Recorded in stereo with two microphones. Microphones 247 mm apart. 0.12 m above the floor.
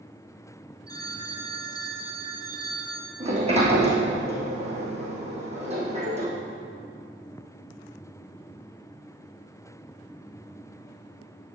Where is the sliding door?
25° right (ahead or behind), 3 m.